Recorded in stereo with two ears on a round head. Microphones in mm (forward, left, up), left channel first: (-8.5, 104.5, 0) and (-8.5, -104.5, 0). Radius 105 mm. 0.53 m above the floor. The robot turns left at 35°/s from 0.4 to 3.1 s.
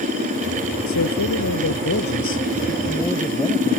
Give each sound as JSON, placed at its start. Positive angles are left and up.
{"t": 0.9, "sound": "a man speaking", "azimuth_deg": 90}